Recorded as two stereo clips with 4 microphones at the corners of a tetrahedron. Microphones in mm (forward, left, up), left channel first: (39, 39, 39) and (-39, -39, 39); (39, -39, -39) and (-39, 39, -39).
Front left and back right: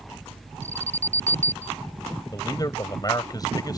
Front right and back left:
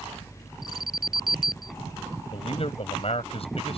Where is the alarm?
140° right.